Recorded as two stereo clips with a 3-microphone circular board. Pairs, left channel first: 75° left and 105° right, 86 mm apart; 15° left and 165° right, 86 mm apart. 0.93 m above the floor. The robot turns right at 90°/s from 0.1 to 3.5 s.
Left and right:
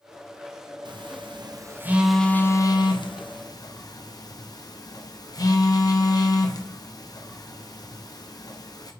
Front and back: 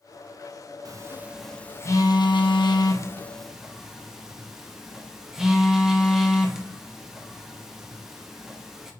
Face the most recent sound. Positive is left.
turn(degrees=110)